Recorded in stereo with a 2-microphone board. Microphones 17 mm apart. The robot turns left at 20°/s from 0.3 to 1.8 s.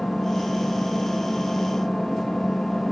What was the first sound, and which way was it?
An engine running, 110° left.